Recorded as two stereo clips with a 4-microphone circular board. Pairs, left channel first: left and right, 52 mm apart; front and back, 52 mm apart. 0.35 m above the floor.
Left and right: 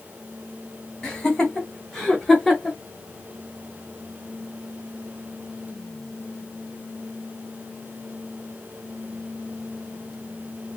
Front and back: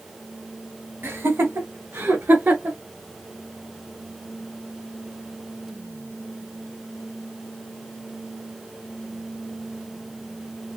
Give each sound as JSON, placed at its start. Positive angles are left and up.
{"t": 1.0, "sound": "laughter", "azimuth_deg": 160, "distance_m": 1.6}